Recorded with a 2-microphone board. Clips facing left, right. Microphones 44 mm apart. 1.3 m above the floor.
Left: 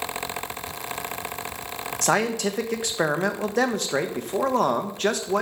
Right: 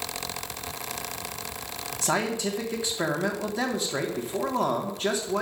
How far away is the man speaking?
About 1.3 m.